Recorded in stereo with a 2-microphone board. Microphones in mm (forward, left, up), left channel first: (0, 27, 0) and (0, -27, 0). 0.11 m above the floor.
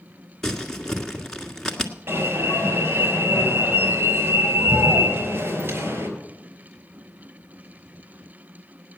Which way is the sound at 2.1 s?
45° right (ahead or behind).